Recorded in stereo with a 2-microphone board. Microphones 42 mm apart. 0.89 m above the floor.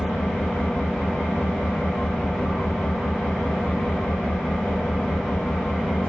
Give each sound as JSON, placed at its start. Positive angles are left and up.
{"t": 0.0, "sound": "an engine running", "side_deg": 25, "distance_m": 2.5}